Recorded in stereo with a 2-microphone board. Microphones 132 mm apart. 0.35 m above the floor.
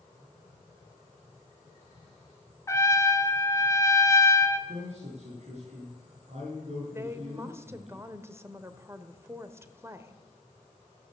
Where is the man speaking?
55° right (ahead or behind), 5 m.